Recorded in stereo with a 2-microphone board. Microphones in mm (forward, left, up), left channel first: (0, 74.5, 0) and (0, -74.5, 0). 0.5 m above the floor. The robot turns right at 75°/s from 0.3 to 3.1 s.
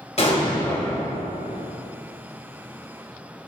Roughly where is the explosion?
Behind left.